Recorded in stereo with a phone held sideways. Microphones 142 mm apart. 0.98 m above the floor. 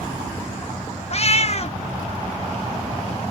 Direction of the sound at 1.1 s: 50° left (ahead or behind).